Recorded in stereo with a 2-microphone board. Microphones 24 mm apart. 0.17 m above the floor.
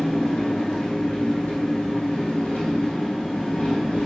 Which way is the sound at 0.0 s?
80° left.